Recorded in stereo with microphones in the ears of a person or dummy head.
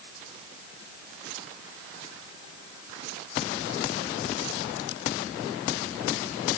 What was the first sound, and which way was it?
Only background noise.